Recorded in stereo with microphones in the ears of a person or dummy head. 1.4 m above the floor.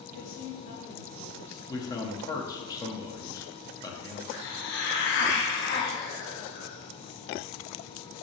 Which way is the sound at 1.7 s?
15° left (ahead or behind).